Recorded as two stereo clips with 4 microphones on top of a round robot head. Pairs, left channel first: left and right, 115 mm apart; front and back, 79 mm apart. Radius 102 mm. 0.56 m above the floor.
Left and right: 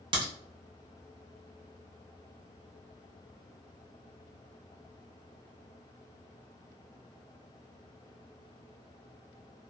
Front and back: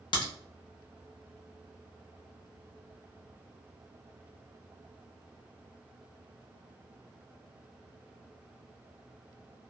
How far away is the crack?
About 0.6 m.